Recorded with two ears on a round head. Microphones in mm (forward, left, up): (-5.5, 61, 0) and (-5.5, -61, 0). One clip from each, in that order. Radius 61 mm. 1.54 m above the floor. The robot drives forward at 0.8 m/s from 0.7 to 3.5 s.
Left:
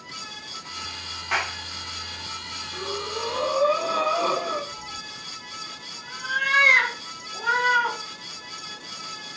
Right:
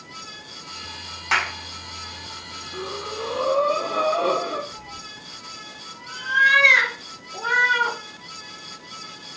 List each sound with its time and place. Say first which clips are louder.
1.3 s a clap: right 4 dB; 80° right, 3 m
2.7 s breathing: even; 40° left (ahead or behind), 3 m; by 4.6 s 50° left (ahead or behind), 2.5 m
4.7 s a cat meowing: left 2 dB; centre (ahead or behind), 4 m